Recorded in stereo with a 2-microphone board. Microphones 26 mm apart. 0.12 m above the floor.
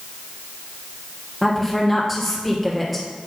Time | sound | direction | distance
1.4 | a woman speaking | centre (ahead or behind) | 2.5 m